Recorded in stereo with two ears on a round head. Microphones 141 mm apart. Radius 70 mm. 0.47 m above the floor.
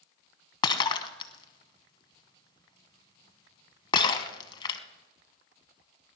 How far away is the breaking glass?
About 1.1 m.